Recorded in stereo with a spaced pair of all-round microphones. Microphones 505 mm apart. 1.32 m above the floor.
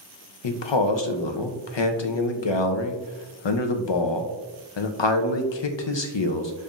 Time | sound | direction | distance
0.4 | a man speaking | 65° left (ahead or behind) | 0.5 m